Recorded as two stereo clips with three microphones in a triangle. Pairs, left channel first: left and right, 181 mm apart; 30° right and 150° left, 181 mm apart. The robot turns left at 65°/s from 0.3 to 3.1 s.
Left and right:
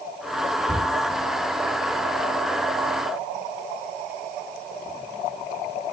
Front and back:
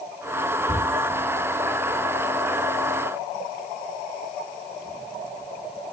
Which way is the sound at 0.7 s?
95° right.